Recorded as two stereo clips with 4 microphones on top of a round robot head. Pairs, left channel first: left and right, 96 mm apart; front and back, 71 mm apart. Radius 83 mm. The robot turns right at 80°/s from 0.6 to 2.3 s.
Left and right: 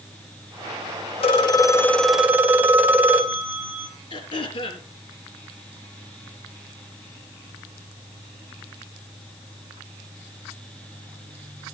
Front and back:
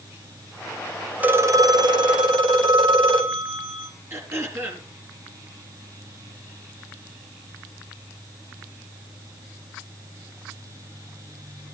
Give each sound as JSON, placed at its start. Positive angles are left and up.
{"t": 1.2, "sound": "a phone ringing", "azimuth_deg": 110, "distance_m": 2.5}
{"t": 4.1, "sound": "throat clearing", "azimuth_deg": 125, "distance_m": 4.0}